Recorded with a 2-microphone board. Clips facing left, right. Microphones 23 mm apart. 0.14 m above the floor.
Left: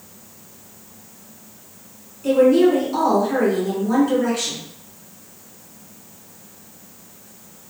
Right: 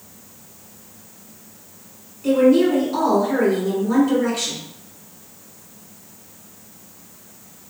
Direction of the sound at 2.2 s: 5° left (ahead or behind).